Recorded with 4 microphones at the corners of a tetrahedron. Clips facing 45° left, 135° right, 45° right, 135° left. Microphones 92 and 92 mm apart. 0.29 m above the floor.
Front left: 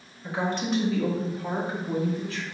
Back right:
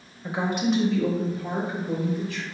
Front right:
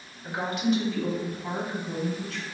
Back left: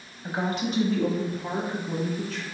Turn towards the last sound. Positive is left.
turn(degrees=90)